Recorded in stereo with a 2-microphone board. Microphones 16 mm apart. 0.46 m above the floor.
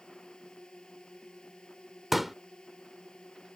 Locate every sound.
0.0 s a drone: 75° left (ahead or behind)
2.1 s a pop: 15° right (ahead or behind)